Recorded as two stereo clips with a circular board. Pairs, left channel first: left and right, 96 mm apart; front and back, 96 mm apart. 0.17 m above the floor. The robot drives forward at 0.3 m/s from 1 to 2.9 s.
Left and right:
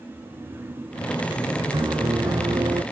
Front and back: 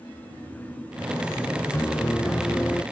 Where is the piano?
65° right; by 2.8 s 75° right.